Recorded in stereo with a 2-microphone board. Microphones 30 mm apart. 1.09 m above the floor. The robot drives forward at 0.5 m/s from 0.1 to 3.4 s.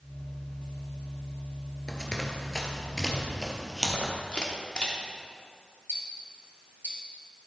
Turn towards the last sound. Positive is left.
turn(degrees=-75)  # may be behind; listen again after turning